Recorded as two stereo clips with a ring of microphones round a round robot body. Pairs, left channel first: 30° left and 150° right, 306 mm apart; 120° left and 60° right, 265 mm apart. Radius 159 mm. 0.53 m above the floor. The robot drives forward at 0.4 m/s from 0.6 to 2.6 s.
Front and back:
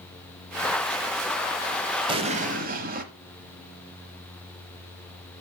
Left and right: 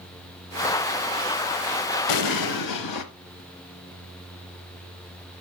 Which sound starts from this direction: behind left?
An explosion, at 2.1 s.